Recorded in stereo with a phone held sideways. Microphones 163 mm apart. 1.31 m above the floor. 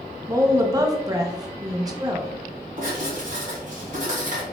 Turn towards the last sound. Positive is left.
turn(degrees=-50)  # may be behind; listen again after turning